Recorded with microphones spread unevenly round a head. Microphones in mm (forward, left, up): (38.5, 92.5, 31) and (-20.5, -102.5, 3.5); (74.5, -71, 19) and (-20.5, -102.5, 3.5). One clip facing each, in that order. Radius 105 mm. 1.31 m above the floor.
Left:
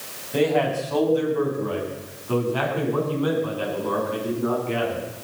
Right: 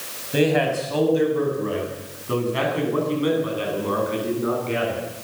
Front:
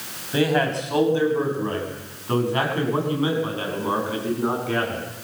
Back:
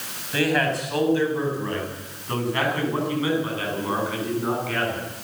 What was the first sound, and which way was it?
A man speaking, 45° right.